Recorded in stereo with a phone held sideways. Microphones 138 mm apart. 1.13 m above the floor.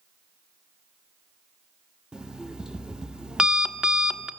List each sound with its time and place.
2.1 s an alarm clock: 5° right (ahead or behind), 0.8 m